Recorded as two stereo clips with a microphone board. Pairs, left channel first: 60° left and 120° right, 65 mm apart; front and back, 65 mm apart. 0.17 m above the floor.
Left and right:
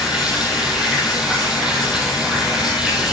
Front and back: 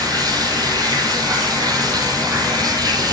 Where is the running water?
165° left, 3 m.